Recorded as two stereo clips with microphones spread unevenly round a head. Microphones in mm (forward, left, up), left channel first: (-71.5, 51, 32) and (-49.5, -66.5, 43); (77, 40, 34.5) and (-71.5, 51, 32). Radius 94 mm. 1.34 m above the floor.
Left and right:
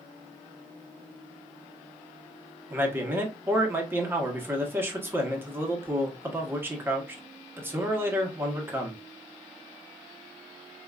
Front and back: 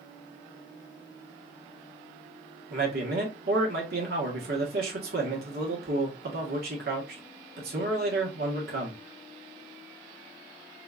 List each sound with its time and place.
2.7 s a man speaking: 150° right, 1.5 m